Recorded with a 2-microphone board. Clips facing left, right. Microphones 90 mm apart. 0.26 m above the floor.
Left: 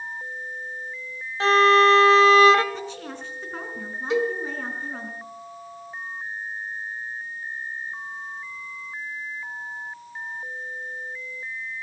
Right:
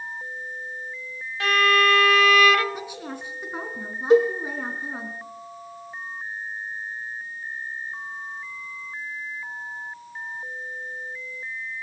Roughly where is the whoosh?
I don't hear a whoosh.